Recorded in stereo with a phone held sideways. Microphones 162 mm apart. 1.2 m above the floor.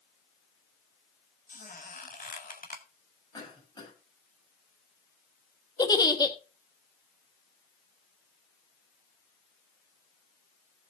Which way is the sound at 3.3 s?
25° left (ahead or behind).